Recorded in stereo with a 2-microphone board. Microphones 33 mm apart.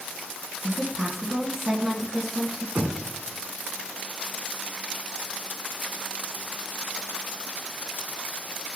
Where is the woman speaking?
Centre (ahead or behind), 2.5 m.